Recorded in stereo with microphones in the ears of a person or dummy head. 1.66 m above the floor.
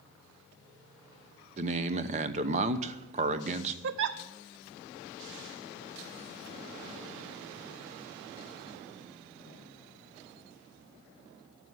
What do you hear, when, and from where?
1.6 s a man speaking: 35° right (ahead or behind), 0.9 m
3.8 s a giggle: 65° right (ahead or behind), 0.5 m